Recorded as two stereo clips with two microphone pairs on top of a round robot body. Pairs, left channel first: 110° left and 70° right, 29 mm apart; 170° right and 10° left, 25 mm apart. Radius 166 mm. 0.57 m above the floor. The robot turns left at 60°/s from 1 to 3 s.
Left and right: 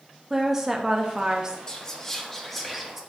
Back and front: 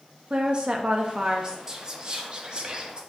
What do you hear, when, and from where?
0.3 s a woman speaking: 10° right, 0.6 m; by 1.6 s 45° right, 0.6 m
1.7 s whispering: 75° left, 0.9 m; by 3.0 s 5° right, 0.9 m